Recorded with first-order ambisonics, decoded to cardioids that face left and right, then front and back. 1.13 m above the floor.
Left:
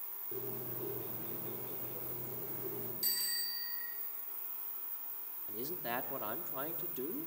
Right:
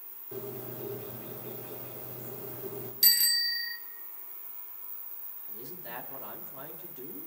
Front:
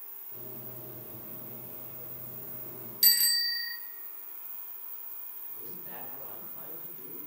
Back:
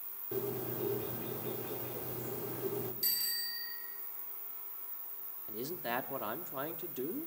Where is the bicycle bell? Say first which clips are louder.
Right 13 dB, front 13 dB; 45° right, 3 m.